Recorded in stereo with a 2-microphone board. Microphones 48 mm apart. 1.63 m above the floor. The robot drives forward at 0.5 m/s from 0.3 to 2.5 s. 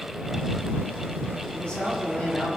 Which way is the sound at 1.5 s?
20° left (ahead or behind).